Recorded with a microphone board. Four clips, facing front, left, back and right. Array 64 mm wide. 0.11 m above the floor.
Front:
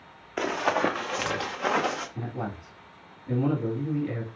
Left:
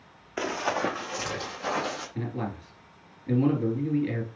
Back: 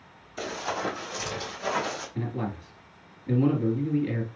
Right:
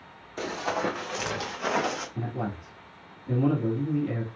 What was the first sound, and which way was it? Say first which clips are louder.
Running footsteps: left 1 dB, front 6 dB; 35° left.